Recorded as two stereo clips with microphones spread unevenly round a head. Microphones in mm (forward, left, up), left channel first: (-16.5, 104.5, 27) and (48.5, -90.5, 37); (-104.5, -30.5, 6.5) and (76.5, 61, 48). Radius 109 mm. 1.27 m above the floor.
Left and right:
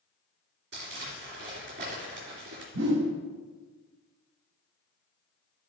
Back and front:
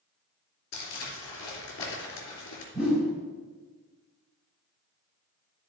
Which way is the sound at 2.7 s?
50° right.